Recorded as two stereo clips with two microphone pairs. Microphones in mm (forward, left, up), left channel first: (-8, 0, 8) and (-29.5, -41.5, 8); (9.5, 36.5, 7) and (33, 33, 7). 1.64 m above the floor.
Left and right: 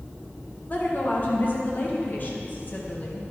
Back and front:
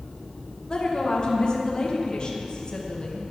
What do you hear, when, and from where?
0.7 s a woman speaking: 115° left, 1.3 m